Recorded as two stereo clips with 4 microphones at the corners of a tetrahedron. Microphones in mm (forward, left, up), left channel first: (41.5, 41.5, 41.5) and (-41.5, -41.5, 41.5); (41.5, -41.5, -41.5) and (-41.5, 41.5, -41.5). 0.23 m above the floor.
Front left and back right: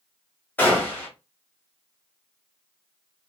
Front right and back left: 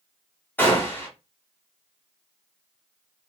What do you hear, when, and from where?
0.6 s a gunshot: 5° right, 1.3 m